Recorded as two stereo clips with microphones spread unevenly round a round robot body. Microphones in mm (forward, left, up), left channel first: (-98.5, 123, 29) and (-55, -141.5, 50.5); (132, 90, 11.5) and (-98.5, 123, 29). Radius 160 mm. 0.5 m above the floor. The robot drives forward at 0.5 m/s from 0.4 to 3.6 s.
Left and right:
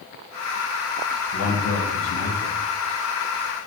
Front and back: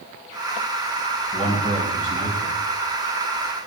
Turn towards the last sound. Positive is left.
turn(degrees=125)